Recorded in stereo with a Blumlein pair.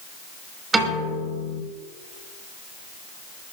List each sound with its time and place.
0.7 s a piano: 10° right, 5.5 m